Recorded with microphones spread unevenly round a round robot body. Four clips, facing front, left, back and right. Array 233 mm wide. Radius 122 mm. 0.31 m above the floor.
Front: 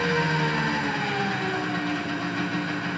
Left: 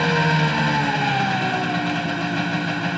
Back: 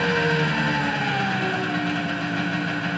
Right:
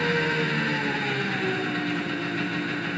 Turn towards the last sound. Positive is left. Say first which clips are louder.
# left 5 dB, back 2 dB
turn(degrees=105)